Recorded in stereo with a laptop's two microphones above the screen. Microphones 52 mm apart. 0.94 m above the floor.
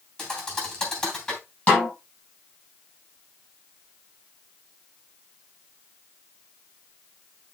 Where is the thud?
15° left (ahead or behind), 3 m.